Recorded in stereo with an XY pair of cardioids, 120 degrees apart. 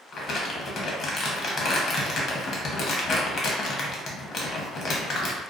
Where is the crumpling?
45° left, 0.7 m.